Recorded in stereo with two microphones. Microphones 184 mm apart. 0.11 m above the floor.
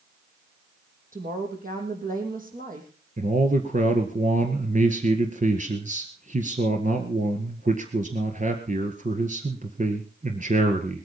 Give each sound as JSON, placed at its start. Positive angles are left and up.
{"t": 1.1, "sound": "a woman speaking", "side_deg": -50, "distance_m": 4.0}
{"t": 3.2, "sound": "a man speaking", "side_deg": -45, "distance_m": 1.7}